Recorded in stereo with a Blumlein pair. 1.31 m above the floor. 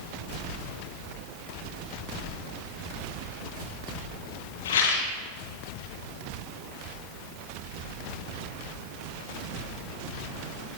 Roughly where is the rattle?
Ahead left.